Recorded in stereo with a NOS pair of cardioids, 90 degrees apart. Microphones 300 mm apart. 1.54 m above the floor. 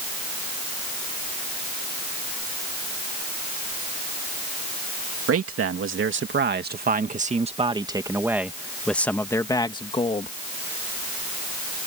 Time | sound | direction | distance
5.3 | a man speaking | 50° right | ?